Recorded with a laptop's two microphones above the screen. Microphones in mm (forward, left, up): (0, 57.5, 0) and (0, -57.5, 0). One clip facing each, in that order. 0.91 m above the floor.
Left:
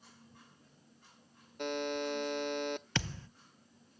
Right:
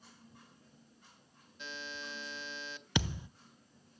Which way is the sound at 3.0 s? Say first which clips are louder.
Right 3 dB; 15° right (ahead or behind).